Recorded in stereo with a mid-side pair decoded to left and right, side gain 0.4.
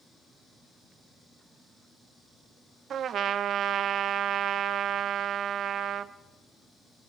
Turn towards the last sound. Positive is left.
turn(degrees=-65)